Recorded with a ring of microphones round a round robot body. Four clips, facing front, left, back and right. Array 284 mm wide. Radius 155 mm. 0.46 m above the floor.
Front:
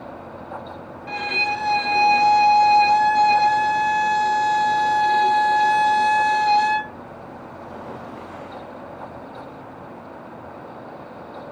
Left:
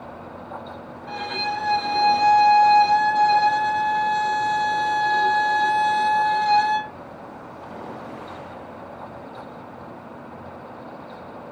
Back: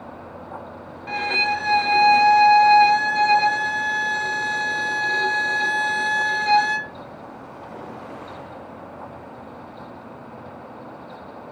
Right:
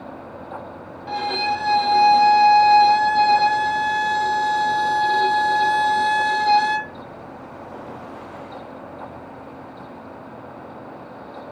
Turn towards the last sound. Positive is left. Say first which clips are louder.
# right 5 dB, back 2 dB
turn(degrees=-115)